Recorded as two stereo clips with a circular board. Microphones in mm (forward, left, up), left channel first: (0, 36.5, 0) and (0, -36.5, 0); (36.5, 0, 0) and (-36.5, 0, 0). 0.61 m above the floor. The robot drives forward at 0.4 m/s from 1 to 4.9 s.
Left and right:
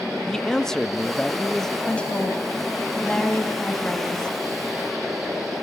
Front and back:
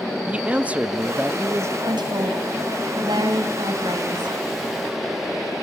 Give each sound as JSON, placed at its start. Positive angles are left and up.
{"t": 0.3, "sound": "a man speaking", "azimuth_deg": 160, "distance_m": 0.6}
{"t": 1.9, "sound": "a woman speaking", "azimuth_deg": 165, "distance_m": 3.5}